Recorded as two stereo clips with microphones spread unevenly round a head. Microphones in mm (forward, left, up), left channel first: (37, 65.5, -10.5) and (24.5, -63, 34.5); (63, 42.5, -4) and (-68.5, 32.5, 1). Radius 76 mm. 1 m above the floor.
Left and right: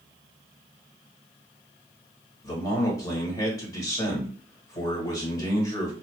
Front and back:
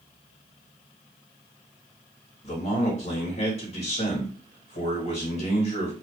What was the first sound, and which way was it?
A man speaking, 35° left.